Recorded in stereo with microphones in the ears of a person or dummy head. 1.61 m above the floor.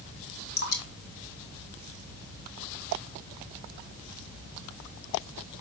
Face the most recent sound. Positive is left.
turn(degrees=50)  # may be behind; listen again after turning